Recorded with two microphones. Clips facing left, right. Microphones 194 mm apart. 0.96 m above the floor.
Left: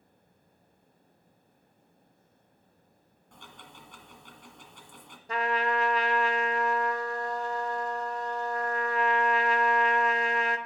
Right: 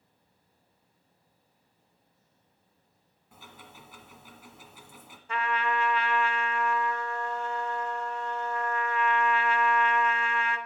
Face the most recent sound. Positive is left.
turn(degrees=40)  # may be behind; listen again after turning